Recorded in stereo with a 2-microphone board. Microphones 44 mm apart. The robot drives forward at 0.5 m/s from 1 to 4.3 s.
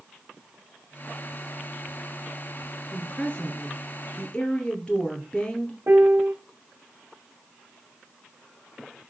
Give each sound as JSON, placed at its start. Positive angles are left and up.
{"t": 2.9, "sound": "a woman speaking", "side_deg": 25, "distance_m": 1.9}
{"t": 5.9, "sound": "a piano", "side_deg": -50, "distance_m": 0.7}